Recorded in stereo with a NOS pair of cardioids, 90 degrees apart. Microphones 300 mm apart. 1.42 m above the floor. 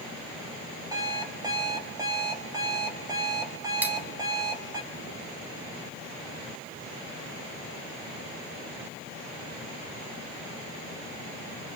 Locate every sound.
0.9 s an alarm clock: 10° right, 4.5 m
3.8 s cutlery clinking: 5° right, 2.5 m